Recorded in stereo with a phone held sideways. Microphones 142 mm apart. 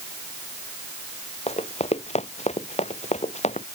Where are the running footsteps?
50° left (ahead or behind); by 3.7 s 55° left (ahead or behind).